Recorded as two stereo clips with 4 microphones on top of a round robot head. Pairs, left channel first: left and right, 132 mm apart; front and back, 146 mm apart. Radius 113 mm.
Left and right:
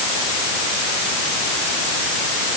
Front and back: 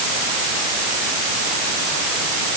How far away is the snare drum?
I don't hear a snare drum.